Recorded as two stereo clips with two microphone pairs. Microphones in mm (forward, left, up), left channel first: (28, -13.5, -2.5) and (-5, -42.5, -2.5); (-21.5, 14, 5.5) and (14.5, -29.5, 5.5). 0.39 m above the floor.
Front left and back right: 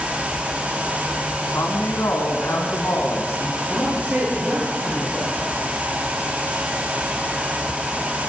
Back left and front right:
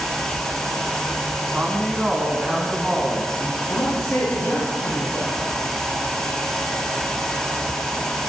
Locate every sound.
1.5 s a woman speaking: 20° left, 3 m; by 3.6 s 45° left, 3 m
3.7 s a man speaking: 175° left, 8.5 m